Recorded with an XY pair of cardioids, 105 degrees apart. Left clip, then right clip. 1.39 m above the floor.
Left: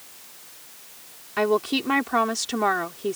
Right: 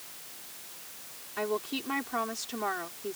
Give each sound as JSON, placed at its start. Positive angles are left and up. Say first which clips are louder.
{"t": 1.4, "sound": "a woman speaking", "louder": "left 10 dB", "azimuth_deg": 60}